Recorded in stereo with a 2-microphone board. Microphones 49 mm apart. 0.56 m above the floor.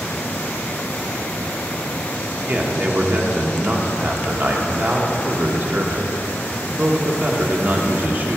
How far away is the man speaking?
About 1.2 m.